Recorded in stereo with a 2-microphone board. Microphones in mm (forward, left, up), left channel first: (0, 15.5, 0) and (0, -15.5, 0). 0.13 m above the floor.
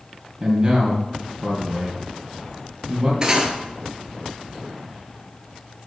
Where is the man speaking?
40° right (ahead or behind), 3 m.